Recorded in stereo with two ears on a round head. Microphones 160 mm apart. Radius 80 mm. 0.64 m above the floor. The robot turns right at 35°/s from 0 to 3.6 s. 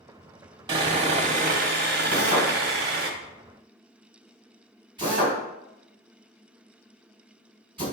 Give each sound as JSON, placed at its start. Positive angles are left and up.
{"t": 0.7, "sound": "sawing", "azimuth_deg": -150, "distance_m": 1.2}
{"t": 2.1, "sound": "a drill", "side_deg": 20, "distance_m": 3.0}